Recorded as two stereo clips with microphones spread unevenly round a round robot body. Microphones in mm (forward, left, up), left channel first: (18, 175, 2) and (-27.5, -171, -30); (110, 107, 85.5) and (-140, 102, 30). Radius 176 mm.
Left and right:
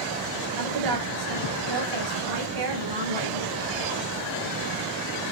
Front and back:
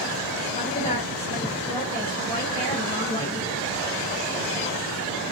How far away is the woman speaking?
About 7 m.